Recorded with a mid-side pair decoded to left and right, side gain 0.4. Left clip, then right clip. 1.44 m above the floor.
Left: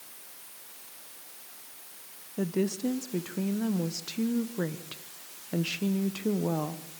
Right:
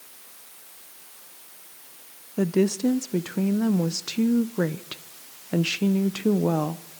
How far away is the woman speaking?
About 1.1 m.